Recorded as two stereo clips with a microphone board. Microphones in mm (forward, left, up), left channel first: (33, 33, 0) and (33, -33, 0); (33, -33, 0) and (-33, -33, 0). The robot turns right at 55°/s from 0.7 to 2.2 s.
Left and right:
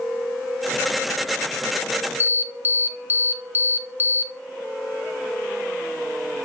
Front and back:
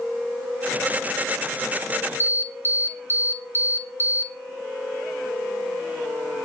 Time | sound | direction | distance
2.2 | an alarm | 40° right | 1.4 m